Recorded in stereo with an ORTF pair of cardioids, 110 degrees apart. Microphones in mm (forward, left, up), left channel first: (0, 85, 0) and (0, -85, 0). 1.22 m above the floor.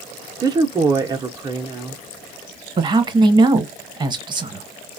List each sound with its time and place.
0.4 s a woman speaking: 25° right, 0.5 m
2.8 s a man speaking: 25° right, 0.9 m